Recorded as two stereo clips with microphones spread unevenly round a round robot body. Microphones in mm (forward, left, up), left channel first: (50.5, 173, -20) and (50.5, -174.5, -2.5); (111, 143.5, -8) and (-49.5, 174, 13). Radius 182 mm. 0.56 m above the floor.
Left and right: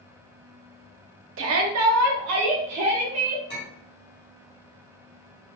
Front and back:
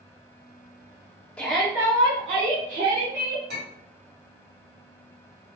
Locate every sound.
1.4 s a shout: 75° right, 0.7 m; by 3.4 s 140° right, 1.4 m
3.5 s a clink: 150° left, 2 m